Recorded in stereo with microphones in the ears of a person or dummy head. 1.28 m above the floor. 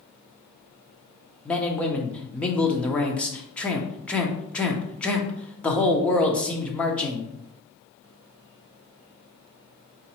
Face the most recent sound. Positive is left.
turn(degrees=10)  # may be behind; listen again after turning